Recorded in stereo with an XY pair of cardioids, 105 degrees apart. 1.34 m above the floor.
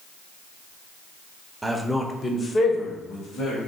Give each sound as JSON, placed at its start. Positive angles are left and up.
{"t": 1.6, "sound": "a man speaking", "azimuth_deg": -15, "distance_m": 0.6}